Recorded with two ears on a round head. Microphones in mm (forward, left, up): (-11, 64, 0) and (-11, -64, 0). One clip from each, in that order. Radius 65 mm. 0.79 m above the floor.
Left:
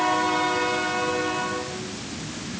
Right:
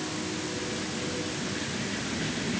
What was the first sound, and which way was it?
Only background noise.